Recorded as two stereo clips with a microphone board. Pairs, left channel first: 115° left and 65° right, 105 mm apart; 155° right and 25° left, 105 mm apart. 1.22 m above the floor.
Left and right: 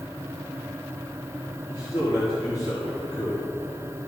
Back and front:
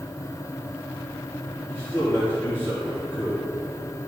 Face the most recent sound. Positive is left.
turn(degrees=135)